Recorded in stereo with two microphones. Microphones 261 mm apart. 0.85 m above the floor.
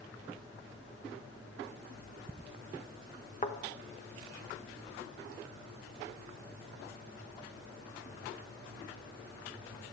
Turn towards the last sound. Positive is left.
turn(degrees=30)  # may be behind; listen again after turning